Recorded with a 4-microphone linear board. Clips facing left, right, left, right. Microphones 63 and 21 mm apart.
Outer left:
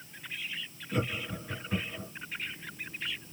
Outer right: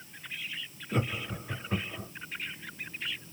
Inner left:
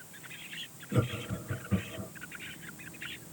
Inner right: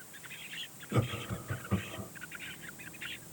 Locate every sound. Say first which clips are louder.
0.9 s laughter: even, inner left 2 dB; 30° right (ahead or behind), 1.3 m